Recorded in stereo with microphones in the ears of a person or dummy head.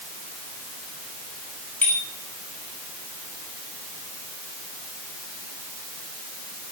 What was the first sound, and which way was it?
A bicycle bell, 10° left (ahead or behind).